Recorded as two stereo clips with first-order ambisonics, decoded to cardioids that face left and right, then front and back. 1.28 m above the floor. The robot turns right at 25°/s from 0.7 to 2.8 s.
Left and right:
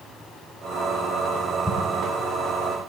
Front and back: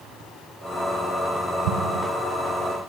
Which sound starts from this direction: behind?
An explosion, at 1.6 s.